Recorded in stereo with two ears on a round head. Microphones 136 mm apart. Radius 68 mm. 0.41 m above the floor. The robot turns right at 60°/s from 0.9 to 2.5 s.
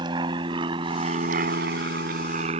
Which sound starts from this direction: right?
An aircraft, at 0.0 s.